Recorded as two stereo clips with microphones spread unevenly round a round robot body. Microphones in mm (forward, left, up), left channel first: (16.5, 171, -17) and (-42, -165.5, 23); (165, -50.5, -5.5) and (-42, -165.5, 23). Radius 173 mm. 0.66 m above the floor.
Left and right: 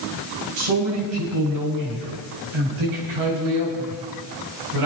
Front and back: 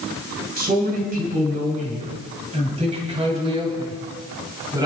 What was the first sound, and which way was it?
A man speaking, 100° right.